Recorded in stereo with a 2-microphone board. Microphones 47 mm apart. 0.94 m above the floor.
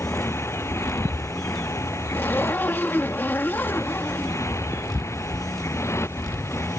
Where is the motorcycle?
65° left (ahead or behind).